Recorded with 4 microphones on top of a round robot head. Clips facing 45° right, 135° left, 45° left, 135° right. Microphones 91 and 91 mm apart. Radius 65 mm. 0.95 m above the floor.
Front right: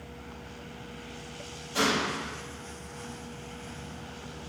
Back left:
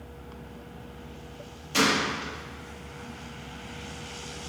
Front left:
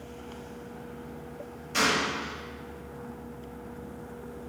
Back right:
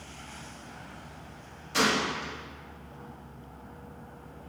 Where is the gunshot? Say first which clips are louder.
Back left 2 dB, even; 140° left, 1.4 m.